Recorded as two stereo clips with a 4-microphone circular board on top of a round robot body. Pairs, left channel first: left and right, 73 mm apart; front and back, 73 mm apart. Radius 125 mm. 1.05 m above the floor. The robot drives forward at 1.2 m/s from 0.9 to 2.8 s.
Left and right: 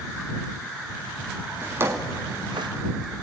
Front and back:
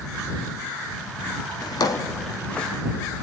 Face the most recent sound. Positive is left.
turn(degrees=-95)